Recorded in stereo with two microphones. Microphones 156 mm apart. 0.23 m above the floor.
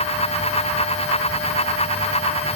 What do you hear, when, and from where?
Only background noise.